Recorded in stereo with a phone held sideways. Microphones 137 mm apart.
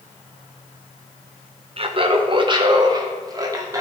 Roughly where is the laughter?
Right.